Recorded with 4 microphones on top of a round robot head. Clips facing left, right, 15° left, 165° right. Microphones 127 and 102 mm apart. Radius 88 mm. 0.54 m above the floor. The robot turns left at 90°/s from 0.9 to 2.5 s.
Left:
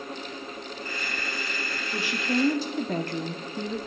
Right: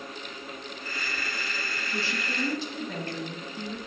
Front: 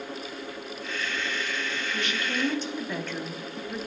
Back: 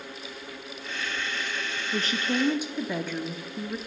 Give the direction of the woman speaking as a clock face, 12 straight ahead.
6 o'clock.